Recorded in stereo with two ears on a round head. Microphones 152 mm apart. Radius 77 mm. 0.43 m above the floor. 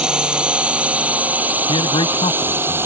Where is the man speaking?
30° left (ahead or behind).